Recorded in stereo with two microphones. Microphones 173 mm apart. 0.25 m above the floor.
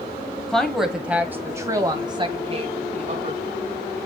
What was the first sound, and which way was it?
A woman speaking, 5° left (ahead or behind).